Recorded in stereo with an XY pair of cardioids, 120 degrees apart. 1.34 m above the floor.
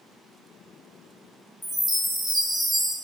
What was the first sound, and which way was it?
A chime, 5° left.